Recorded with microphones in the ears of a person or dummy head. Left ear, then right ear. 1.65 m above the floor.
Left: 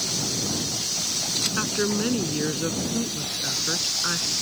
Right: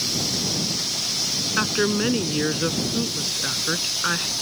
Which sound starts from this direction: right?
A woman speaking, at 1.6 s.